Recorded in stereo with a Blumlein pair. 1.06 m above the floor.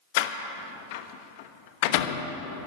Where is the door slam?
50° left, 1.0 m.